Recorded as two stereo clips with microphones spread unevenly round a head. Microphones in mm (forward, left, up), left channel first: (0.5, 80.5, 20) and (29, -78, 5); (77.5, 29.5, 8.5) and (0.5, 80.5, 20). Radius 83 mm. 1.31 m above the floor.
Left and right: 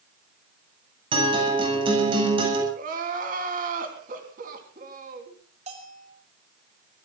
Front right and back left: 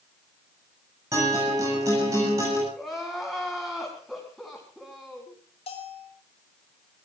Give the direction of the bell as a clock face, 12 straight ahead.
1 o'clock.